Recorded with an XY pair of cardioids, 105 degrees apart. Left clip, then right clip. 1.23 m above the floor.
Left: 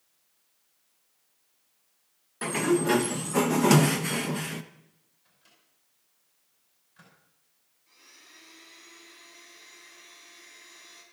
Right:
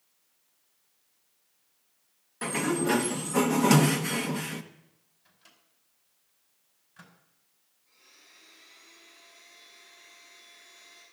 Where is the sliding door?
5° left, 0.9 m.